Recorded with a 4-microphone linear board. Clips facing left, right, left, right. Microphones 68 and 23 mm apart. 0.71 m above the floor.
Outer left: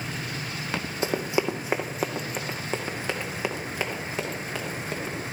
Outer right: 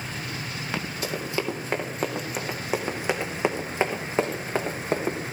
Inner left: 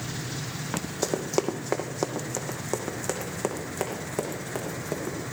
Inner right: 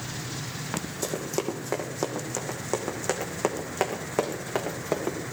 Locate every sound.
1.0 s running footsteps: 25° left (ahead or behind), 2.0 m; by 5.2 s 40° right (ahead or behind), 4 m